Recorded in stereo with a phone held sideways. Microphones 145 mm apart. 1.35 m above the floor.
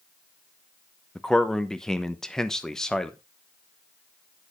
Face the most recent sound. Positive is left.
turn(degrees=5)  # may be behind; listen again after turning